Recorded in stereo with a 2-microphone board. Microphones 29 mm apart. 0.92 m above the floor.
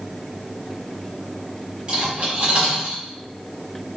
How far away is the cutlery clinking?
About 2 m.